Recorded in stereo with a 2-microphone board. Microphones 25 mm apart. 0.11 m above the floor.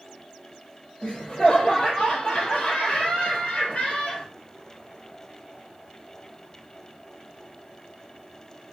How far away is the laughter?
About 1.8 m.